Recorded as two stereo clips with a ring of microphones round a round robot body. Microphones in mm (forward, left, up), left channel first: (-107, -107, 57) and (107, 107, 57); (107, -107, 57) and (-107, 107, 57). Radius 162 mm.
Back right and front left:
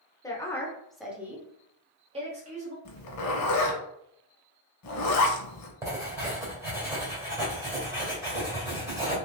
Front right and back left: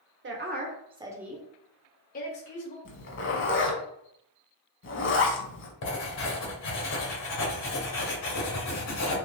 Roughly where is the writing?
Ahead right.